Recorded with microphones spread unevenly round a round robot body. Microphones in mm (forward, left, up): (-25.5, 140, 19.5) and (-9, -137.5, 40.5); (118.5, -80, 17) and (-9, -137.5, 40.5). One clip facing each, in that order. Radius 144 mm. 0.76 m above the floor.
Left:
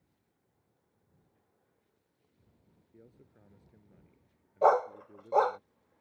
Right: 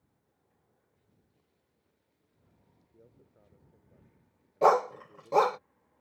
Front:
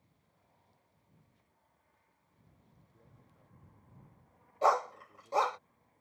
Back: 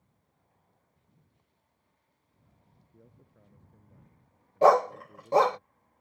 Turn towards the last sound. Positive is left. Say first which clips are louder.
# right 1 dB, back 9 dB
turn(degrees=-130)